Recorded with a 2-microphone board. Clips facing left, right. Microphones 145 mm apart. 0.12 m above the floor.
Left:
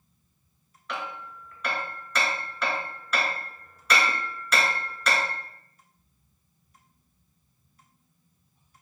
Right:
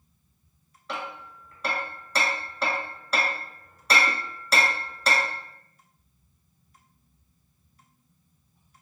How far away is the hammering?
About 0.8 m.